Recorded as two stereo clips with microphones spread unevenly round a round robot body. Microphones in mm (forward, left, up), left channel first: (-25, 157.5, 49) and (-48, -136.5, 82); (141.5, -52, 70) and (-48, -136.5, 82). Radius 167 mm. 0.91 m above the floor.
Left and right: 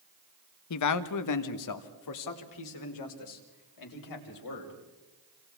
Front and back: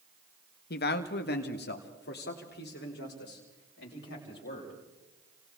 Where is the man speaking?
65° left, 0.9 m; by 4.8 s 75° left, 5 m.